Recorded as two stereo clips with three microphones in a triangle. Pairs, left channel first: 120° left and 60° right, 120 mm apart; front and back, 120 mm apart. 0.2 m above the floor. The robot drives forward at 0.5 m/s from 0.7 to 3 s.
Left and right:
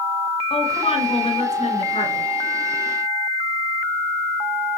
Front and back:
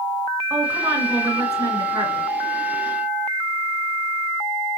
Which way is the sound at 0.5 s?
115° left.